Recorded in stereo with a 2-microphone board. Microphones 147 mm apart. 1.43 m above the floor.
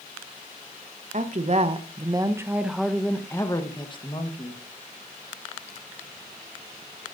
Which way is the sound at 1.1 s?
55° right (ahead or behind).